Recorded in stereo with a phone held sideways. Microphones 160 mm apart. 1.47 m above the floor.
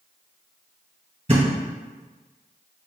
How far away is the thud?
About 2.0 m.